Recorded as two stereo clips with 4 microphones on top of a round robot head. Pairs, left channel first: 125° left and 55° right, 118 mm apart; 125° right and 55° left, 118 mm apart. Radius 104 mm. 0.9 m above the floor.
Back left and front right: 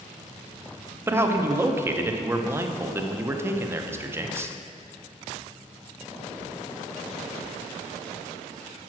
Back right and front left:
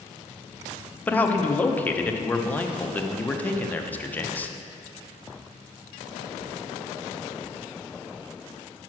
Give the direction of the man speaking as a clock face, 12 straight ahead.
3 o'clock.